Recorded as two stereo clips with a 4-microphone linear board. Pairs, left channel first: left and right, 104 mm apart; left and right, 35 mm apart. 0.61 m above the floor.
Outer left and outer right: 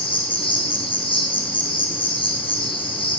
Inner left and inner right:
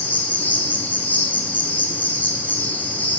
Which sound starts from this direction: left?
An insect, at 0.0 s.